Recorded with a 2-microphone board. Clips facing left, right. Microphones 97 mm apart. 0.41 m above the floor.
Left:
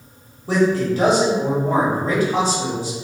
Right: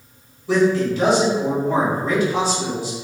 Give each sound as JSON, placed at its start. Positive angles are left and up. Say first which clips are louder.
{"t": 0.5, "sound": "a man speaking", "louder": "right 1 dB", "side_deg": 45, "distance_m": 1.7}